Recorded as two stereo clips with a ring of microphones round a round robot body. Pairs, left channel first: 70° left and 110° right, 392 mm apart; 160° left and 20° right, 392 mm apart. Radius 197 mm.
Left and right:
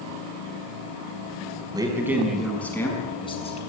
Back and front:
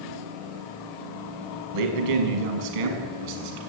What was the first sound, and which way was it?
A man speaking, 30° right.